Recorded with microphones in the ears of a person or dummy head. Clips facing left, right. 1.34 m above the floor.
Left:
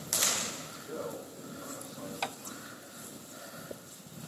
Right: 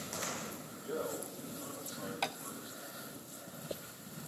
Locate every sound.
0.7 s a man speaking: 10° left (ahead or behind), 9.5 m
2.2 s tapping: centre (ahead or behind), 1.2 m